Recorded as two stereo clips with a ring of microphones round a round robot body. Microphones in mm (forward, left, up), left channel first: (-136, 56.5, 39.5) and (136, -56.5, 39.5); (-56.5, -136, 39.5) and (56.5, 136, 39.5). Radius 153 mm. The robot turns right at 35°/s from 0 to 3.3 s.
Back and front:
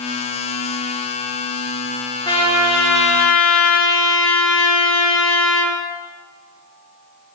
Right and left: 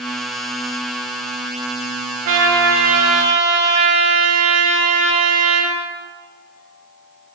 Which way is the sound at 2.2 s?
80° left.